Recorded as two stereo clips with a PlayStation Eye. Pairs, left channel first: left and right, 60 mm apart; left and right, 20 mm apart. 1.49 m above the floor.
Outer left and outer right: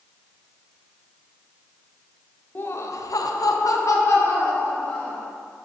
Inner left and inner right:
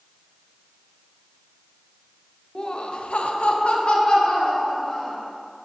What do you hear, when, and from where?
2.5 s laughter: 35° left (ahead or behind), 0.7 m